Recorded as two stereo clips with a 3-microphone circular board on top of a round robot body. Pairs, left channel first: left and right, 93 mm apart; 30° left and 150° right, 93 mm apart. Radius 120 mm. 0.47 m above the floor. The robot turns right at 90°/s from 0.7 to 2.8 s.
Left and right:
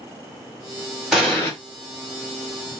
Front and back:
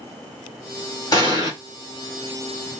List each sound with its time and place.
1.1 s an explosion: straight ahead, 2.5 m; by 1.5 s 35° left, 2.5 m